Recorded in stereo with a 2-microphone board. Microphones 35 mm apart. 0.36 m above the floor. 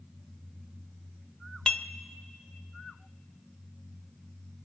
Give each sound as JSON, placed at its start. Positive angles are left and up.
{"t": 1.7, "sound": "dishes clattering", "side_deg": 15, "distance_m": 0.6}